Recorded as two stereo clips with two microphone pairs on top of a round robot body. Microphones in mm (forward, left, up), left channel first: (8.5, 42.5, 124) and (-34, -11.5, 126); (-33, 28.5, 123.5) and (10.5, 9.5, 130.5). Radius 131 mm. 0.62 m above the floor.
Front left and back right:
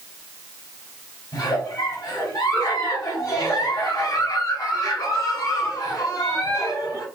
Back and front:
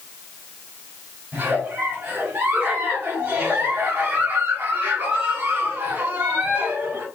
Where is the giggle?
20° left, 2.5 m.